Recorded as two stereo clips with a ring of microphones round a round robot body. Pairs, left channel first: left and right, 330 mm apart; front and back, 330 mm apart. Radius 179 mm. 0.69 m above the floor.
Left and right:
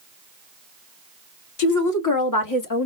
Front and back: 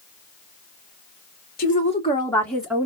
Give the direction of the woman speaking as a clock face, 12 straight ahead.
10 o'clock.